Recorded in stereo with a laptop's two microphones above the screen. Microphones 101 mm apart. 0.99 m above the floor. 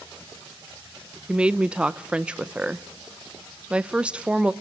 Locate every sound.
1.3 s a woman speaking: 10° right (ahead or behind), 0.5 m